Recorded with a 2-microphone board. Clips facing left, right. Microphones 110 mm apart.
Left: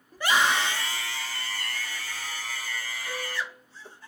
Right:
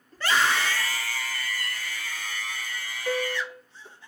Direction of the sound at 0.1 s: 10° left (ahead or behind).